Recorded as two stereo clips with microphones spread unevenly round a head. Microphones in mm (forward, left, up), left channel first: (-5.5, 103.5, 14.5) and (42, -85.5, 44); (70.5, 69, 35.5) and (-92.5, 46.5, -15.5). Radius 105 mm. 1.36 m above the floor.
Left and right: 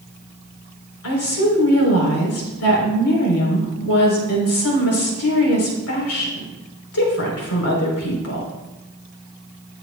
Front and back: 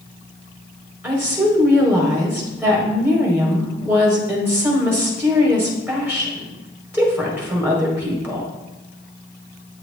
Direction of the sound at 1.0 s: 110° left.